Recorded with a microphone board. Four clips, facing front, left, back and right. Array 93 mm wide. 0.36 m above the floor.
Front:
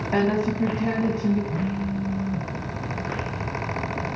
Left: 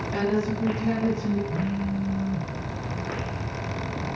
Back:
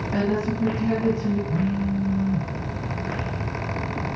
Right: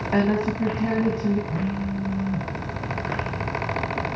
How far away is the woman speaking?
About 2.5 m.